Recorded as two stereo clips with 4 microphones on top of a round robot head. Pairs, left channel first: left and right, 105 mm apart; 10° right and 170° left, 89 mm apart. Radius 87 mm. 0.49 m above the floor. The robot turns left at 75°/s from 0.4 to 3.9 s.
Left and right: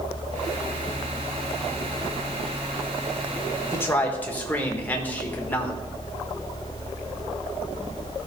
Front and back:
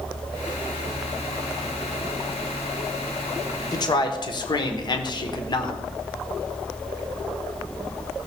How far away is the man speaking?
About 1.3 m.